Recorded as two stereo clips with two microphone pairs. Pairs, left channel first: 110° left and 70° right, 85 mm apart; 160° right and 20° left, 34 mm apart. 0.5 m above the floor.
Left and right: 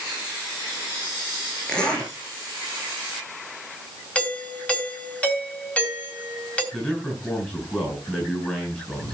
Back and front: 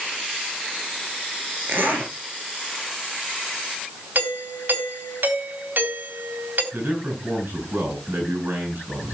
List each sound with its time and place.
1.7 s a zipper: 35° left, 8.5 m
4.2 s a doorbell: 40° left, 3.5 m
6.7 s a man speaking: 35° left, 6.5 m